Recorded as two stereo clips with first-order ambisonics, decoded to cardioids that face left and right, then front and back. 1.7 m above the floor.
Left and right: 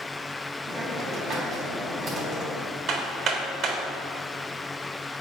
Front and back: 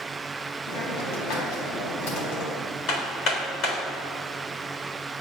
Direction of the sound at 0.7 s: 20° right.